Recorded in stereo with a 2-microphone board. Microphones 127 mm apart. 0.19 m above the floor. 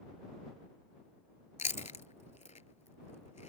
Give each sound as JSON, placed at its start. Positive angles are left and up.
{"t": 1.6, "sound": "chewing", "side_deg": 70}